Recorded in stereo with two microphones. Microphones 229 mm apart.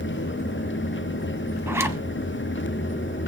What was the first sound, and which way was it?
A zipper, 10° right (ahead or behind).